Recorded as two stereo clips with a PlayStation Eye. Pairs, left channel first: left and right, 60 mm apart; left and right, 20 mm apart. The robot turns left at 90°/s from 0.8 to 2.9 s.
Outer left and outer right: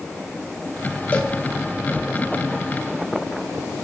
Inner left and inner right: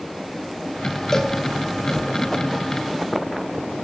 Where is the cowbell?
25° left (ahead or behind), 1.4 m; by 1.4 s 5° left (ahead or behind), 1.4 m.